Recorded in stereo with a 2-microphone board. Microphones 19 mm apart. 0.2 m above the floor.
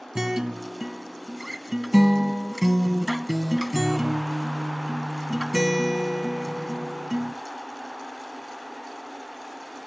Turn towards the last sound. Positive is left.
turn(degrees=-25)  # may be behind; listen again after turning